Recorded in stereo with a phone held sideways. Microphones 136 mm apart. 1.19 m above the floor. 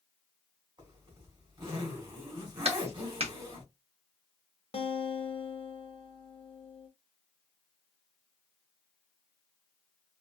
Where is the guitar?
45° left (ahead or behind), 0.9 m.